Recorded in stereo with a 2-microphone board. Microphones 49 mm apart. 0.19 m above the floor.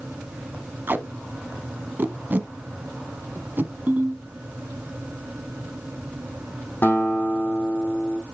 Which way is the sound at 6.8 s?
45° left (ahead or behind).